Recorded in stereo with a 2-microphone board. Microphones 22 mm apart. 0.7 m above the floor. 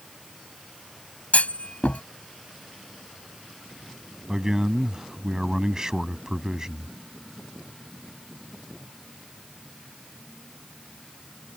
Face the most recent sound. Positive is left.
turn(degrees=-25)  # may be behind; listen again after turning